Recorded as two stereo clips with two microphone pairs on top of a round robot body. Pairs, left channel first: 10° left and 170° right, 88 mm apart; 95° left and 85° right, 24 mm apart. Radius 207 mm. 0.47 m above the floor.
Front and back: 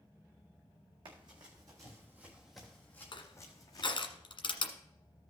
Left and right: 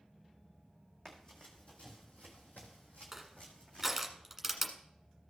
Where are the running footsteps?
160° left, 1.8 m; by 3.9 s 60° left, 1.9 m.